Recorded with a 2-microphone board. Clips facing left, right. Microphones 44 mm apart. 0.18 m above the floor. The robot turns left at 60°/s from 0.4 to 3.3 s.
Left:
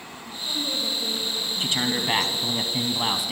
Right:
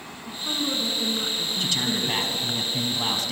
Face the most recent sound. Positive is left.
turn(degrees=10)  # may be behind; listen again after turning